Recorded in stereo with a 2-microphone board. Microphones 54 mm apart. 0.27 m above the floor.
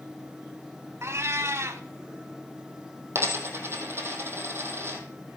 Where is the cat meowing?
55° right (ahead or behind), 0.8 m.